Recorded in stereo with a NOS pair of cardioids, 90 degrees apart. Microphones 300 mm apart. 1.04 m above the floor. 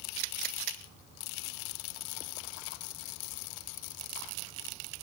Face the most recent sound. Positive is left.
No sound to turn to.